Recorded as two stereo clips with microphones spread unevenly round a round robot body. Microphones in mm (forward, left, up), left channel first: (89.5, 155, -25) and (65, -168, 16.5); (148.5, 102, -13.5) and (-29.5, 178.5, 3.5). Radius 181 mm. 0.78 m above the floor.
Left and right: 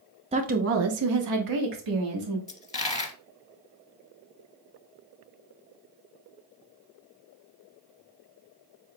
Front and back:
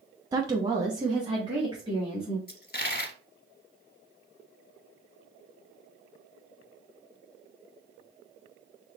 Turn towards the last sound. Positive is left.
turn(degrees=15)